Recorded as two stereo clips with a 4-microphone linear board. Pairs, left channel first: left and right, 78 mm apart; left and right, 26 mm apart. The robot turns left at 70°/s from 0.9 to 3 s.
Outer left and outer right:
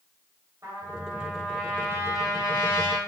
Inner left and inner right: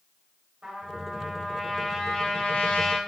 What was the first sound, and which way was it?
A trumpet, 140° right.